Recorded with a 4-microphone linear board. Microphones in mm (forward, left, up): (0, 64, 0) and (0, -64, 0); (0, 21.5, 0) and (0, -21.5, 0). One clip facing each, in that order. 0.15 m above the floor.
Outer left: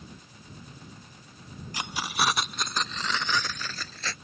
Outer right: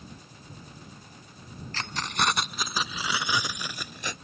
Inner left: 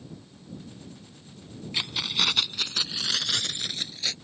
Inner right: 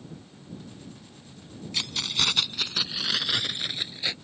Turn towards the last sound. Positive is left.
turn(degrees=-20)  # may be behind; listen again after turning